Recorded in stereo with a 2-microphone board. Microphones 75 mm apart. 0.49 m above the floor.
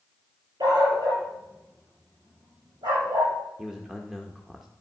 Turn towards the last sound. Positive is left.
turn(degrees=-5)  # may be behind; listen again after turning